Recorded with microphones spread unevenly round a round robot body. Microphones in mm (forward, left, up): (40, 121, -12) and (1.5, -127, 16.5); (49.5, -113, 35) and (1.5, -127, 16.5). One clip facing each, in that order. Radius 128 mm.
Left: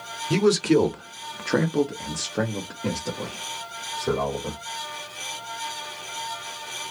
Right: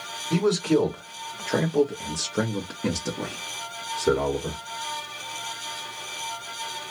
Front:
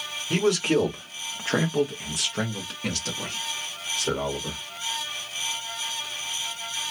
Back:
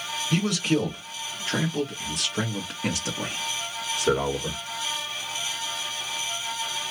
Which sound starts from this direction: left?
A man speaking, at 0.3 s.